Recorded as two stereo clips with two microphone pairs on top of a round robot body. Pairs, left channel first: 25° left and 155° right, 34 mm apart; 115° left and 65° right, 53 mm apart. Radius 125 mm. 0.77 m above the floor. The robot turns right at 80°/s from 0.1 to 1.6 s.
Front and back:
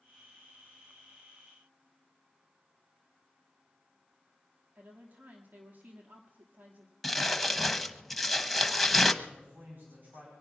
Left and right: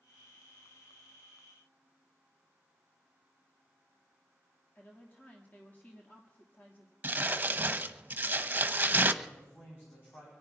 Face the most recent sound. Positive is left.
turn(degrees=165)